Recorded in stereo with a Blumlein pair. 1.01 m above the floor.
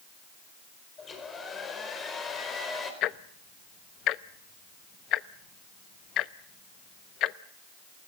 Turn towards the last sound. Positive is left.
turn(degrees=35)